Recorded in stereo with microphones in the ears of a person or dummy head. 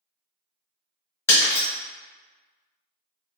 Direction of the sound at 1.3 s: 15° left (ahead or behind).